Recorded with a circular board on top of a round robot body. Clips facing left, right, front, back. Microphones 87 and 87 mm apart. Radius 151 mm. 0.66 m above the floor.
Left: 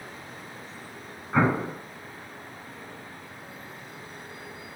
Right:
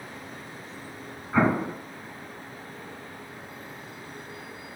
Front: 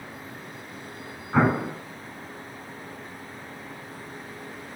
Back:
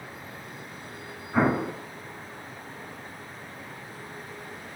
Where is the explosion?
10° left, 3 m.